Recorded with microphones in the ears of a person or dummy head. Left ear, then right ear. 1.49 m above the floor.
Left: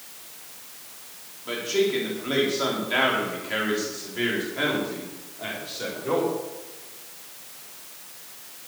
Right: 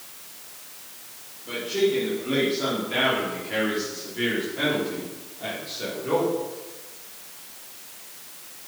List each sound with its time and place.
1.4 s a man speaking: 55° left (ahead or behind), 4.5 m; by 6.3 s 15° left (ahead or behind), 5 m